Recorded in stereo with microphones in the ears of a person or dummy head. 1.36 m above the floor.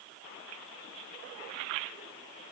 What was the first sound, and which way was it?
Only background noise.